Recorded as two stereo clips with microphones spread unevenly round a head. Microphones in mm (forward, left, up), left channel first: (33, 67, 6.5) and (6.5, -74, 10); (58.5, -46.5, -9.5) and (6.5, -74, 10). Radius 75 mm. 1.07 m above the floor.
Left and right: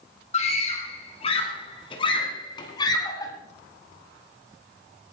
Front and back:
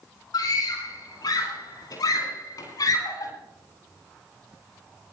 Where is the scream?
35° left, 9 m; by 3.3 s 15° left, 8 m.